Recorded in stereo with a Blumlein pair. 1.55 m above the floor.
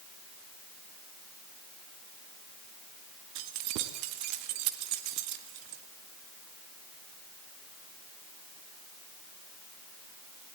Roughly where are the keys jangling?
Ahead right.